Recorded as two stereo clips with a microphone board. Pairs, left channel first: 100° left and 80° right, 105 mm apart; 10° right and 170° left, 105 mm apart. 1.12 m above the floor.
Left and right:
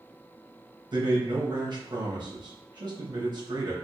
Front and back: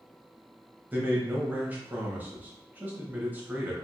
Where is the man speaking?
120° right, 0.9 m.